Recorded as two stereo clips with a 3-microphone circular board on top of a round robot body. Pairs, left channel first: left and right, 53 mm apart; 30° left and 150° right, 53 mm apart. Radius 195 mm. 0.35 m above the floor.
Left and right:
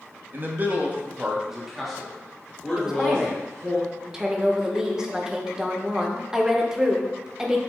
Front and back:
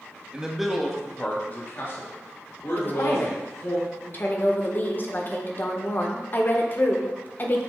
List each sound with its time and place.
0.3 s a man speaking: 85° right, 1.5 m; by 3.8 s 20° left, 3.5 m
2.8 s a woman speaking: 10° right, 1.3 m